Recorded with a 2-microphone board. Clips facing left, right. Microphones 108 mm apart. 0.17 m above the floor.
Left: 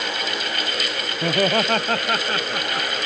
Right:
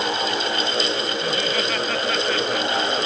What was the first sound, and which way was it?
Laughter, 55° left (ahead or behind).